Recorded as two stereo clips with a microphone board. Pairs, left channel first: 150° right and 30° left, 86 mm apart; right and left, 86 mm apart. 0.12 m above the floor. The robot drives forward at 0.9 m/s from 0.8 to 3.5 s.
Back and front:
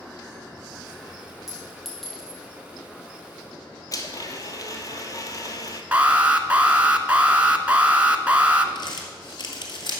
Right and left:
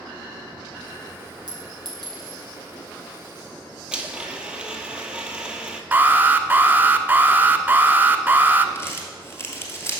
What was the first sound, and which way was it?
A clink, 115° left.